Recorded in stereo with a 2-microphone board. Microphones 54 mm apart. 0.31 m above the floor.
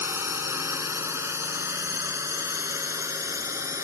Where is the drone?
50° right (ahead or behind); by 3.9 s 70° right (ahead or behind).